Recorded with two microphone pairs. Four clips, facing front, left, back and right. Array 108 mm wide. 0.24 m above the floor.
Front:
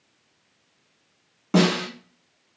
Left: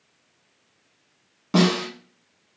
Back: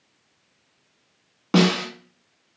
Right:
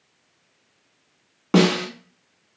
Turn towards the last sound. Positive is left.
turn(degrees=-125)